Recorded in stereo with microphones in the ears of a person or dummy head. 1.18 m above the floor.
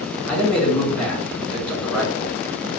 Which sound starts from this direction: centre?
A man speaking, at 0.3 s.